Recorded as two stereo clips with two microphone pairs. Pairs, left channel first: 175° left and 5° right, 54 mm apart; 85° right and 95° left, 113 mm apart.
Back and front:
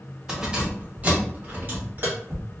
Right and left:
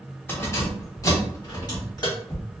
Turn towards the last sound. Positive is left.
turn(degrees=-45)